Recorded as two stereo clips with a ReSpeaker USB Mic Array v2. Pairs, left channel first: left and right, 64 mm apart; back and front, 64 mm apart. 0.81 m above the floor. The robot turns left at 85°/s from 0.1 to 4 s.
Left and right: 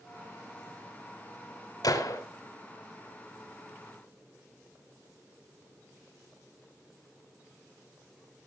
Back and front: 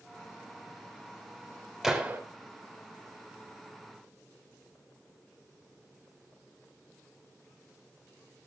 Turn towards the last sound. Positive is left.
turn(degrees=-100)